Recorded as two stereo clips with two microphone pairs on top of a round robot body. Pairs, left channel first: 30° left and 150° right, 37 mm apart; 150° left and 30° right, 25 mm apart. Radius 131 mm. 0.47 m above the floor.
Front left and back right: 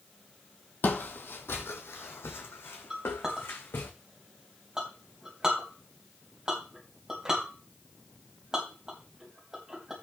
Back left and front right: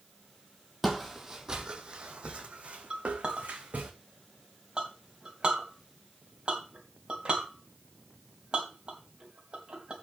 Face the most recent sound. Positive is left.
turn(degrees=-80)